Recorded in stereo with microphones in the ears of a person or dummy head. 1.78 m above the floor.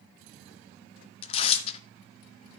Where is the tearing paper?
35° left (ahead or behind), 0.8 m.